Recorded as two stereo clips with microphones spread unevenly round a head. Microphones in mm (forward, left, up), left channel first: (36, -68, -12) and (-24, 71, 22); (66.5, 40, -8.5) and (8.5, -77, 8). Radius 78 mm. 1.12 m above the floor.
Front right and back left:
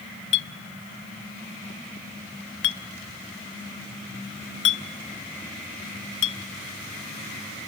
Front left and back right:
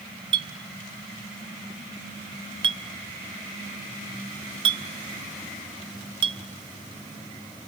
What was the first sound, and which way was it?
A clink, 75° right.